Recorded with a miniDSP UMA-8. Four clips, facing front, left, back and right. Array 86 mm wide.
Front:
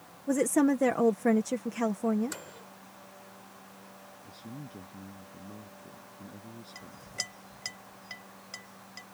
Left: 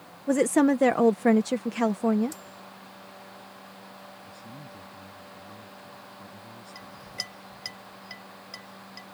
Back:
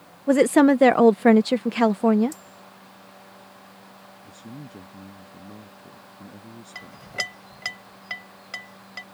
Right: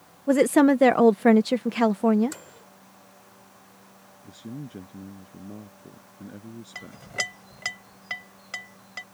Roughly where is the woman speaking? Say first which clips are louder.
Right 3 dB, back 9 dB; behind.